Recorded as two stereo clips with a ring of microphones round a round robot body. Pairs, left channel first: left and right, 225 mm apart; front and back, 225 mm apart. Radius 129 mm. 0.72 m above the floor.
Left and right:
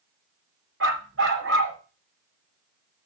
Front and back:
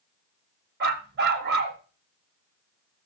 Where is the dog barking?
135° right, 1.5 m.